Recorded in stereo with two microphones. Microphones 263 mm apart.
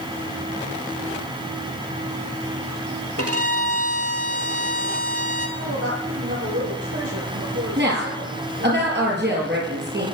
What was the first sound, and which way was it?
A violin, 60° right (ahead or behind).